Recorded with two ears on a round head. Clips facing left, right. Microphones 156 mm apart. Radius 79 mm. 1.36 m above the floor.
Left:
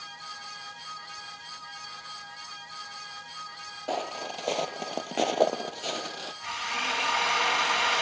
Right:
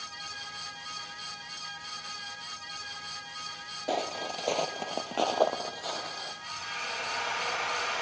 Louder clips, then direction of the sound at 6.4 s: Left 6 dB; 85° left.